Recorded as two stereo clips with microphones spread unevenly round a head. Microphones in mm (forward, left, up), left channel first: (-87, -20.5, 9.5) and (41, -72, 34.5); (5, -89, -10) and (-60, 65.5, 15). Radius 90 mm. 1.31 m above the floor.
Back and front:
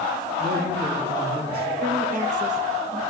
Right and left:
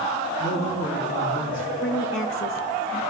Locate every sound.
0.4 s a man speaking: 70° right, 5.5 m
1.8 s a woman speaking: 55° right, 1.6 m